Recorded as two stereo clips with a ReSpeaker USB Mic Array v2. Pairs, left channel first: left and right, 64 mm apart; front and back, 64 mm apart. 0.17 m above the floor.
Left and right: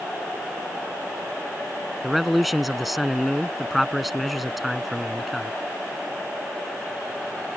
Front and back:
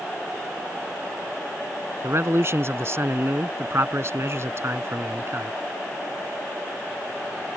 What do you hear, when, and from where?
2.0 s a man speaking: straight behind